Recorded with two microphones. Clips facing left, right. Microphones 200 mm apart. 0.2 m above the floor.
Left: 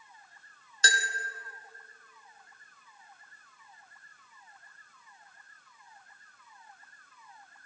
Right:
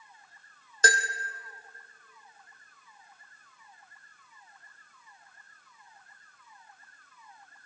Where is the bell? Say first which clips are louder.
Right 6 dB; 50° right (ahead or behind), 1.5 m.